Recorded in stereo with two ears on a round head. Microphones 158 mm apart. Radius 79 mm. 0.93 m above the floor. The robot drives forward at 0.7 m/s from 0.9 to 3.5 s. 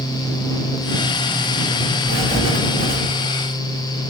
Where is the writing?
40° right (ahead or behind), 2.0 m; by 3.0 s 30° right (ahead or behind), 2.5 m.